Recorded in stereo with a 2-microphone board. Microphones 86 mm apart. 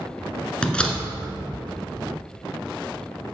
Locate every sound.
0.6 s a door slam: 10° left (ahead or behind), 1.5 m